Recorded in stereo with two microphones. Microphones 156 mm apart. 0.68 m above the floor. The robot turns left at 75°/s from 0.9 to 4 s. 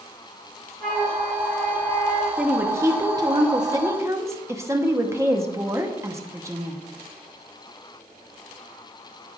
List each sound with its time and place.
0.8 s a flute: 75° right, 3 m; by 2.3 s straight behind, 3 m
2.4 s a woman speaking: 5° right (ahead or behind), 0.9 m; by 6.8 s 15° right (ahead or behind), 0.9 m